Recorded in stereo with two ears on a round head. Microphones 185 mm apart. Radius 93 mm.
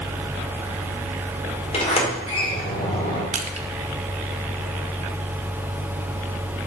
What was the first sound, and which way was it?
A sliding door, 30° left (ahead or behind).